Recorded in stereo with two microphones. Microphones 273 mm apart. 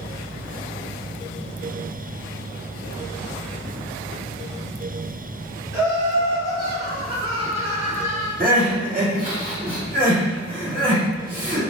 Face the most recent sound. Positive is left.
turn(degrees=-30)  # may be behind; listen again after turning